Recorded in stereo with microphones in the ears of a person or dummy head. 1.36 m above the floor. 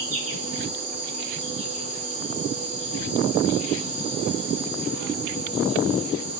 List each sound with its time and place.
0.0 s an insect: 25° right (ahead or behind), 2.5 m